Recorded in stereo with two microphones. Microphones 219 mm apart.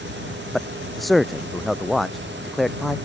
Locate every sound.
0.5 s a man speaking: centre (ahead or behind)